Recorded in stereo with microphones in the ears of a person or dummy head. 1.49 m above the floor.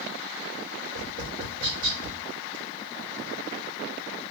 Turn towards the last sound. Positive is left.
turn(degrees=-75)  # may be behind; listen again after turning